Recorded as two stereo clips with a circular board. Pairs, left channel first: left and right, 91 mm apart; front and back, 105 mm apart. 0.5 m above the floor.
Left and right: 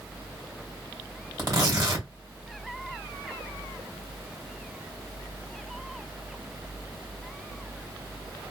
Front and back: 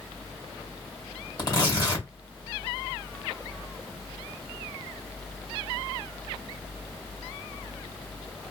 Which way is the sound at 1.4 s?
45° right.